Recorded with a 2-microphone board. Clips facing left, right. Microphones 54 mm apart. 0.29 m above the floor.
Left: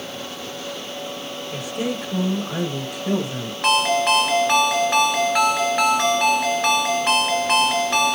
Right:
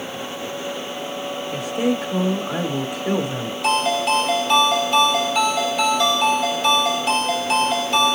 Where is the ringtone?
60° left (ahead or behind), 2.5 m.